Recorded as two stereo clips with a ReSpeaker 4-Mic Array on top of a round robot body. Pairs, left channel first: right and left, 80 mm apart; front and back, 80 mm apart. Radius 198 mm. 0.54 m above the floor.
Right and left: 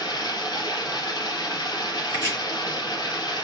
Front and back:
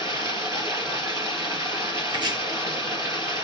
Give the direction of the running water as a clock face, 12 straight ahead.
4 o'clock.